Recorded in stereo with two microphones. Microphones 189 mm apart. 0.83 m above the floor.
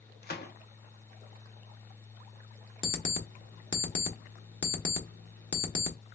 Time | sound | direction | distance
0.2 | a gunshot | 60° left (ahead or behind) | 0.8 m
2.8 | an alarm clock | 80° left | 0.9 m